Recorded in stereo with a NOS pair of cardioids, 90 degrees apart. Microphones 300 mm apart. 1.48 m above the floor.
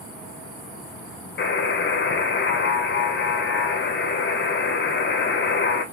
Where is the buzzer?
40° left, 1.0 m.